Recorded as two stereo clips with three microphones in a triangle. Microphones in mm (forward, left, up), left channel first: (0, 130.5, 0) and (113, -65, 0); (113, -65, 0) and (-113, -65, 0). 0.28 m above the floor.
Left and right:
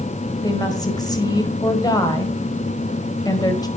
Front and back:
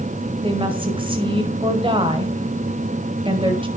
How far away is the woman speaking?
About 1.5 m.